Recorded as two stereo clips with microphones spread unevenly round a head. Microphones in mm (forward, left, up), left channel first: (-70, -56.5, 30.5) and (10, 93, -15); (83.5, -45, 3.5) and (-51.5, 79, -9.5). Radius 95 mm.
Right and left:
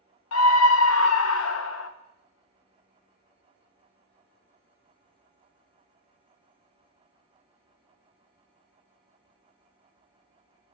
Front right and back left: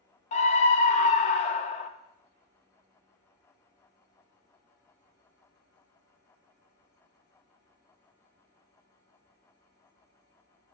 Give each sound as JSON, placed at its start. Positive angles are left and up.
{"t": 0.3, "sound": "a scream", "azimuth_deg": -100, "distance_m": 0.6}